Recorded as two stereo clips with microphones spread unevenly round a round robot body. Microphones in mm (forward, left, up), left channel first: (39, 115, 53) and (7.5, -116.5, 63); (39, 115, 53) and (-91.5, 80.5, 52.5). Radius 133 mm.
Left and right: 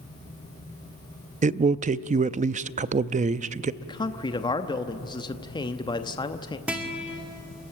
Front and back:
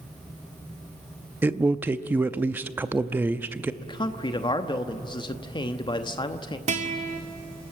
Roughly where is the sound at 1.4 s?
Right.